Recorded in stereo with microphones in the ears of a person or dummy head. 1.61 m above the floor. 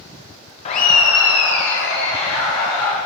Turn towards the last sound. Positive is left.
turn(degrees=55)  # may be behind; listen again after turning